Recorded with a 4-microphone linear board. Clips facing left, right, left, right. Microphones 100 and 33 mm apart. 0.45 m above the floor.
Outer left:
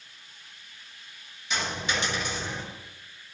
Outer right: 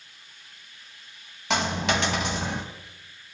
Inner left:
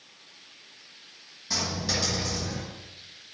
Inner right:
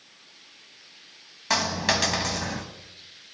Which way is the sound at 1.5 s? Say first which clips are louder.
Outer right 6 dB, inner right 6 dB; 80° right.